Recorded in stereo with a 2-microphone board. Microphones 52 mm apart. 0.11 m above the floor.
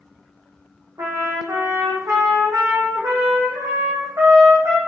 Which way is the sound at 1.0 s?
75° right (ahead or behind).